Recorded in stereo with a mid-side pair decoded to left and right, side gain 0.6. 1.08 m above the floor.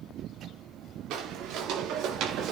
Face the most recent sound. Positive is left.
turn(degrees=-55)